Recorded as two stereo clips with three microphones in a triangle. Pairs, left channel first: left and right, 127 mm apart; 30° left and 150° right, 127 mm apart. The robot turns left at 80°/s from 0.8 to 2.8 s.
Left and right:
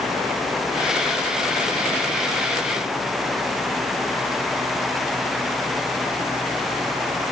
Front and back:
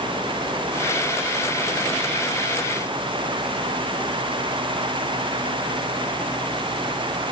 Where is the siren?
I don't hear a siren.